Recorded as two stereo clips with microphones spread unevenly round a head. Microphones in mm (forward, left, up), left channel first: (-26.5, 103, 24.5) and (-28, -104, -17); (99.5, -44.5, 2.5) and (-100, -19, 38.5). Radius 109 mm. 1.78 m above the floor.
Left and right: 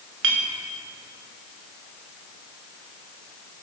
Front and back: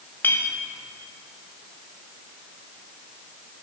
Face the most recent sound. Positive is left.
turn(degrees=-95)